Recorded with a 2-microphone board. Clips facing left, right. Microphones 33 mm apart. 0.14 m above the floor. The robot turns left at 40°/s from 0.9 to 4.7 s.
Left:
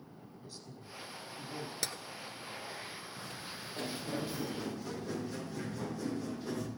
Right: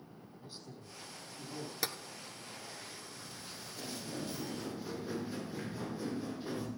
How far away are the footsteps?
About 3.5 m.